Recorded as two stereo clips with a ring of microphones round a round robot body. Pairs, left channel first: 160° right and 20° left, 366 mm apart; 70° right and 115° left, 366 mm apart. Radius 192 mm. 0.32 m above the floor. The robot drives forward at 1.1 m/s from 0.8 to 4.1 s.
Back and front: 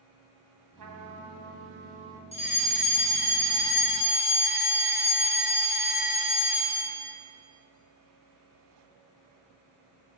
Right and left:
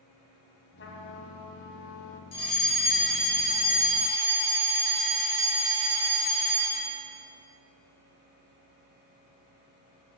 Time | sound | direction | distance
0.8 | a trumpet | 10° right | 2.0 m
2.3 | a fire alarm | 90° right | 2.5 m